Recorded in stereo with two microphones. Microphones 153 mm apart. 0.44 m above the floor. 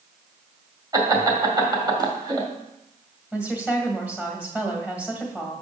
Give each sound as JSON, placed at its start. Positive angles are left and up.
{"t": 0.9, "sound": "laughter", "side_deg": -25, "distance_m": 2.0}
{"t": 3.3, "sound": "a woman speaking", "side_deg": -10, "distance_m": 1.9}